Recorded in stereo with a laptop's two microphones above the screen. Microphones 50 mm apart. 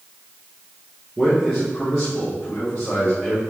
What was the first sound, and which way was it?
A man speaking, 5° right (ahead or behind).